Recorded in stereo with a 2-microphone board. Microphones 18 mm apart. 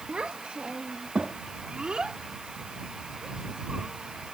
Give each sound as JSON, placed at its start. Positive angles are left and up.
{"t": 0.1, "sound": "a child speaking", "side_deg": -80}